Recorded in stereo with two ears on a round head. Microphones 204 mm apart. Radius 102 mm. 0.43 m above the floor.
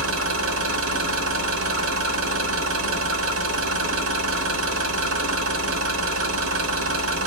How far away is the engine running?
About 1.2 m.